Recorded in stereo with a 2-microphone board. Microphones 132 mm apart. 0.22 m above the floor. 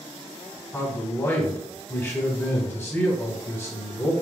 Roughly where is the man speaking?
Centre.